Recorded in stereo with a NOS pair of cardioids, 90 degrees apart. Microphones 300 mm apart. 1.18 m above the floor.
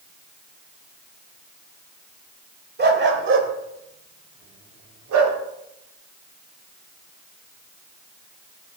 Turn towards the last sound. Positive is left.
turn(degrees=-70)